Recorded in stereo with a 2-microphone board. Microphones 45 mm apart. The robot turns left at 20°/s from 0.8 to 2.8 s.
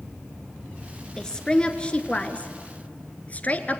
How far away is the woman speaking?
About 1.4 m.